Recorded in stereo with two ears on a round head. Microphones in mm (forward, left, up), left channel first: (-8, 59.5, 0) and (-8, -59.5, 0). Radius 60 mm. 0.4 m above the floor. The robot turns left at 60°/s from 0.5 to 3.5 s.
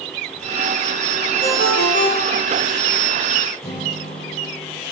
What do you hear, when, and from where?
1.4 s a ringtone: 95° left, 5.5 m; by 2.6 s 25° left, 5.5 m
3.6 s a guitar: 25° left (ahead or behind), 8.5 m